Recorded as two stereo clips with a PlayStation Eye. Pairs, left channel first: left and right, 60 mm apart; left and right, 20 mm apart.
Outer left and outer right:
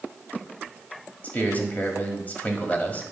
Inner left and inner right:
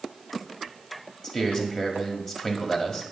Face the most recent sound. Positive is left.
turn(degrees=30)  # may be behind; listen again after turning